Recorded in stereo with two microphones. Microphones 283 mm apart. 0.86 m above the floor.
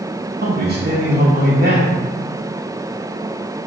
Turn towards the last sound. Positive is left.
turn(degrees=-35)  # may be behind; listen again after turning